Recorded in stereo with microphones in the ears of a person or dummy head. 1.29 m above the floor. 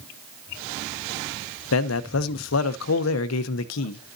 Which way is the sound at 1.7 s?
80° left.